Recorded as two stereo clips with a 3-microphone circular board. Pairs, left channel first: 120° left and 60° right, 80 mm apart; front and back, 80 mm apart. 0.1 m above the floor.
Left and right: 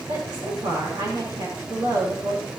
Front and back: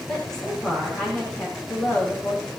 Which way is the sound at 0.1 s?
80° right.